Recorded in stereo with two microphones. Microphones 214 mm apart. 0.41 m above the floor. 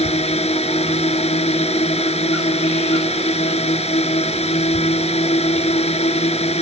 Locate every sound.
0.0 s a drone: 30° left (ahead or behind)